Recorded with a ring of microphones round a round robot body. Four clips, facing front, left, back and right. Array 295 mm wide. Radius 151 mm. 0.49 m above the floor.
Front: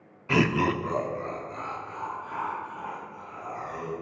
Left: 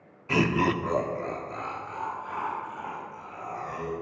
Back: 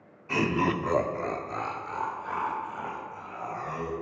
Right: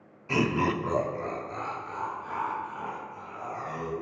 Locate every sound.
0.3 s laughter: 15° left, 0.8 m; by 3.9 s 175° right, 3.5 m